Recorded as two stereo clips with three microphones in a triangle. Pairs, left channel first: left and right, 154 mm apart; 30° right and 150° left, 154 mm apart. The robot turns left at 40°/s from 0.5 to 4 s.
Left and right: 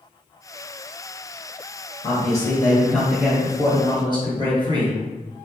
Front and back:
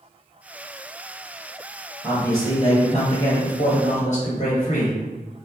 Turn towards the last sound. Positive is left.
turn(degrees=-40)